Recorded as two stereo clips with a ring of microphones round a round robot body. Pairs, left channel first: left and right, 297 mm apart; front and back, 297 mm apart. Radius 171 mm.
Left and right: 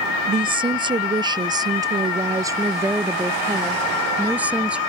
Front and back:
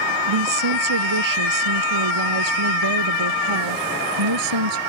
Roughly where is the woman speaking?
Behind.